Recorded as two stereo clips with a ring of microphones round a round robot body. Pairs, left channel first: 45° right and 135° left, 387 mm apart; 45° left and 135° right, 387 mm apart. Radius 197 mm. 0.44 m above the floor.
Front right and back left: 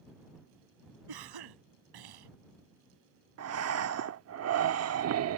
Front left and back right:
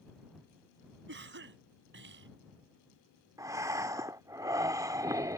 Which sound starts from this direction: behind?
A cough, at 1.1 s.